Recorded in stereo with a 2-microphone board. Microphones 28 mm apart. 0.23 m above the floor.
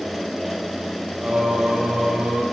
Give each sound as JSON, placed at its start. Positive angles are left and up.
{"t": 1.2, "sound": "singing", "side_deg": -40, "distance_m": 8.0}